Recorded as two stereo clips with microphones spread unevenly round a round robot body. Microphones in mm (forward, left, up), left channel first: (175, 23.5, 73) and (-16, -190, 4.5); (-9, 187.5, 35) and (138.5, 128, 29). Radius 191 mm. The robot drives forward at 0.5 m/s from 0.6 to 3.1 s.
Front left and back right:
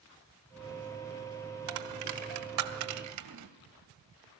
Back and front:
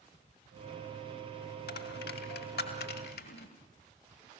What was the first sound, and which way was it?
A dropped coin, 170° right.